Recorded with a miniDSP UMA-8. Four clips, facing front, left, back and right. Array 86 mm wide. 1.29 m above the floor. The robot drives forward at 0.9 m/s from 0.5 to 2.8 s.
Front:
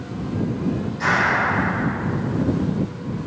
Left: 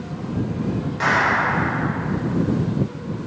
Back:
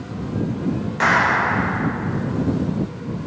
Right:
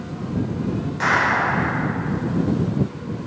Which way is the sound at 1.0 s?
175° left.